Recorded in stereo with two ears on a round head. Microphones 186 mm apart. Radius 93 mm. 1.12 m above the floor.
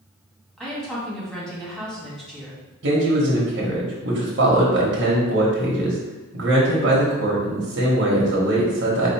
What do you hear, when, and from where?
0.6 s a woman speaking: 5° left (ahead or behind), 1.6 m
2.8 s a man speaking: 60° right (ahead or behind), 1.1 m